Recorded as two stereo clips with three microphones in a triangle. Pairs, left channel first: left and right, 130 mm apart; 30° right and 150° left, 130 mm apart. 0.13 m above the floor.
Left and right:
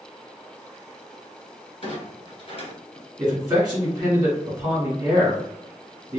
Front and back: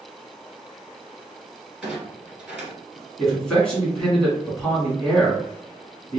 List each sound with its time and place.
1.8 s a clunk: 70° left, 1.5 m
3.2 s a man speaking: 110° right, 1.4 m